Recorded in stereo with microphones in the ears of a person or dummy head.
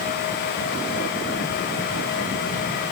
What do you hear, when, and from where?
Only background noise.